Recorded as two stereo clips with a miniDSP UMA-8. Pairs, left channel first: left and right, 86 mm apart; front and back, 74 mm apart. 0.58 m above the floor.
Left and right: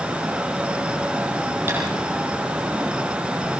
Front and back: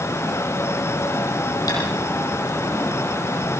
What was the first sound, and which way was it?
Tapping, 25° right.